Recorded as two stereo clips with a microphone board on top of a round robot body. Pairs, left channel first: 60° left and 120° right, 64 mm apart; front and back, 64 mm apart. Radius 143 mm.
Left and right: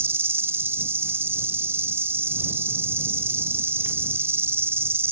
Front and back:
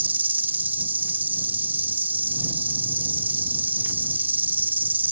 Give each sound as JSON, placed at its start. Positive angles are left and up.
{"t": 0.0, "sound": "an insect", "azimuth_deg": -140}